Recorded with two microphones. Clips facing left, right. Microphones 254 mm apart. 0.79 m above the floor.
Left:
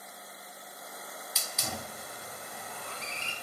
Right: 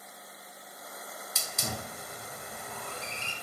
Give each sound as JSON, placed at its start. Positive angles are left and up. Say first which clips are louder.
{"t": 1.4, "sound": "a hiss", "louder": "right 2 dB", "side_deg": -55, "distance_m": 0.7}